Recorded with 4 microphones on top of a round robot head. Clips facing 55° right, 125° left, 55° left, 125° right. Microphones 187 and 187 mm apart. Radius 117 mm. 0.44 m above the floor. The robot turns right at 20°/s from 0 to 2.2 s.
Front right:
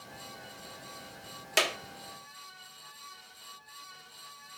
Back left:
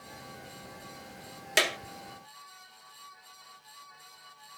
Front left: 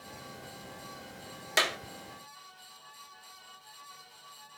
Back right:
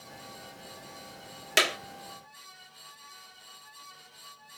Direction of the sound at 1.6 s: 160° right.